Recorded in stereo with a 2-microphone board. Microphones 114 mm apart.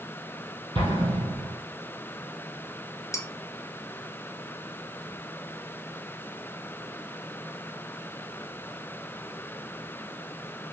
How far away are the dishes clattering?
About 1.1 m.